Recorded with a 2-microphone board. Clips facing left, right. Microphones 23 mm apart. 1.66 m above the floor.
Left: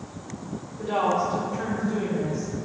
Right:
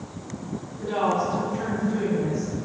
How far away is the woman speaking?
About 1.0 m.